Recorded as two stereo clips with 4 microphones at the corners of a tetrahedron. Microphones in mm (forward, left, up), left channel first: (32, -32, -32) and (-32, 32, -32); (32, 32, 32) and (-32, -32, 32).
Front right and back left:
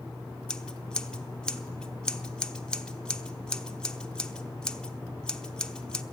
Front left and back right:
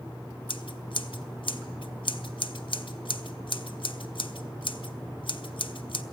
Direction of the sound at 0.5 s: 35° left.